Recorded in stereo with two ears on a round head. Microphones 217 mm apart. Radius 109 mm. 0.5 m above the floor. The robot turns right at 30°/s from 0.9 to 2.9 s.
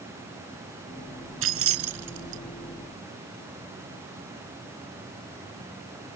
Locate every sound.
1.4 s keys jangling: 60° right (ahead or behind); by 2.4 s 85° right